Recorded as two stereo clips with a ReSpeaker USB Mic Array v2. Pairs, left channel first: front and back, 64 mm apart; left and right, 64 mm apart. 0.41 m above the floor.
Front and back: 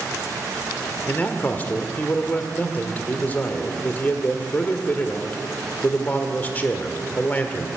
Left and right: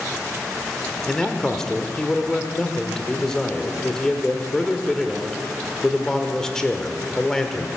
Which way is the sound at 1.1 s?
20° left.